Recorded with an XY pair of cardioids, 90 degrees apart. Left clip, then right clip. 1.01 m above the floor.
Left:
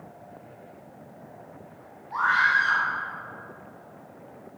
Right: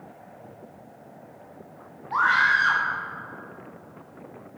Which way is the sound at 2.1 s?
65° right.